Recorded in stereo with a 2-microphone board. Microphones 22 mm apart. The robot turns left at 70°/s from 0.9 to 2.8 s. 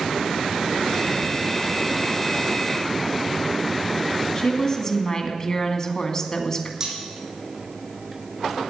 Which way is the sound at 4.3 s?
30° left (ahead or behind).